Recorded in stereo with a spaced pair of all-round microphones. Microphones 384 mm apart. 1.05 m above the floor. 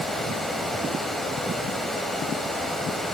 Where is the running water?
Centre (ahead or behind), 1.7 m.